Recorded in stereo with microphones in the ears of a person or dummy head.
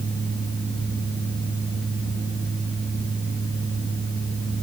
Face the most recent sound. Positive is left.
turn(degrees=45)  # may be behind; listen again after turning